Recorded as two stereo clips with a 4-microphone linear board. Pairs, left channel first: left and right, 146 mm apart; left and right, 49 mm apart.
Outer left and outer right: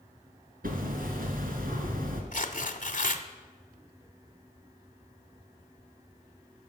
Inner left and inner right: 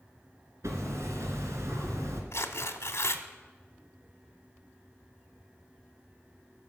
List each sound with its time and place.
0.6 s hammering: 80° right, 2 m
2.3 s tearing paper: 65° left (ahead or behind), 1.0 m